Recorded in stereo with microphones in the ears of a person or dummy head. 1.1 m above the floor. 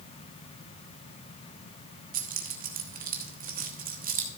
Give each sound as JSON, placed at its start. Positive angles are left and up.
{"t": 2.1, "sound": "keys jangling", "side_deg": -55, "distance_m": 1.1}